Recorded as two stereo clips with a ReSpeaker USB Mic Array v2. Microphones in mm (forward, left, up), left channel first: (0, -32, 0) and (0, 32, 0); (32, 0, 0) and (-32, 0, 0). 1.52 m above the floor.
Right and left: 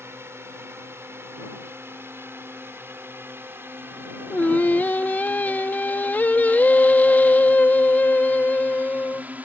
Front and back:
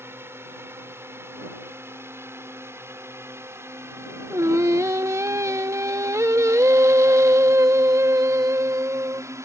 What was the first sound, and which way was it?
A drone, 135° left.